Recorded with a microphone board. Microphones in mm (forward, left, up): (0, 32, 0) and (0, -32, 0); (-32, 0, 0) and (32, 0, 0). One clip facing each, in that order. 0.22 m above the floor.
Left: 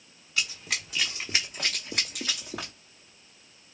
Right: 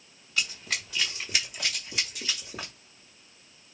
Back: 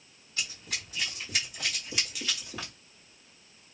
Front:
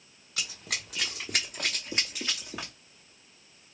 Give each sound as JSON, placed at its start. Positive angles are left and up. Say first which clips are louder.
{"t": 0.4, "sound": "running footsteps", "louder": "even, front 1 dB", "azimuth_deg": 0, "distance_m": 1.2}